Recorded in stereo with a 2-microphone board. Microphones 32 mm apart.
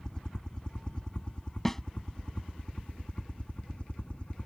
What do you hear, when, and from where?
0.0 s a helicopter: 25° left (ahead or behind); by 4.5 s 35° left (ahead or behind)
1.6 s a snare drum: 10° left (ahead or behind)